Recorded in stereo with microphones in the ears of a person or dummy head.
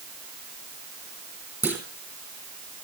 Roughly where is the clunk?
Centre.